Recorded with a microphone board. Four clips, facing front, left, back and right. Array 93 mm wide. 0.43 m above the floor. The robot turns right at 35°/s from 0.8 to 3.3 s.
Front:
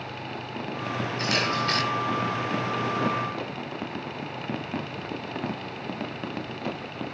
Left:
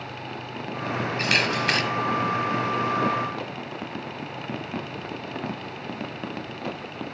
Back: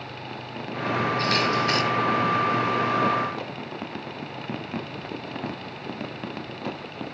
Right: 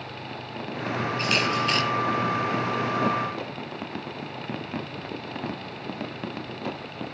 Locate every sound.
1.2 s a camera shutter: 75° left, 5.5 m; by 1.8 s 100° left, 5.5 m